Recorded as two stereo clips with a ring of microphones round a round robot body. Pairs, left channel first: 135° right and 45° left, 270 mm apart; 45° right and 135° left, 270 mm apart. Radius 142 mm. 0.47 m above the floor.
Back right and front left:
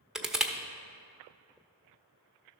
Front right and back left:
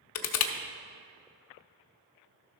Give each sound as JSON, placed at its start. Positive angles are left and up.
{"t": 0.1, "sound": "crushing", "azimuth_deg": -45, "distance_m": 0.7}